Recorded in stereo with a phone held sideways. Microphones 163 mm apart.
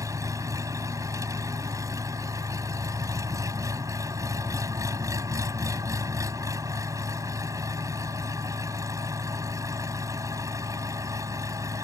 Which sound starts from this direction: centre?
An engine running, at 0.0 s.